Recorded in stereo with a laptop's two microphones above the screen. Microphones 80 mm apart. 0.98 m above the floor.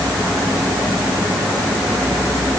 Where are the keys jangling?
No keys jangling in this recording.